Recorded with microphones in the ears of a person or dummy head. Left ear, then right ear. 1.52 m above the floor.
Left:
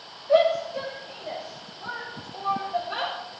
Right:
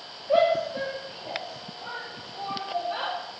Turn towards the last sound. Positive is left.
turn(degrees=15)  # may be behind; listen again after turning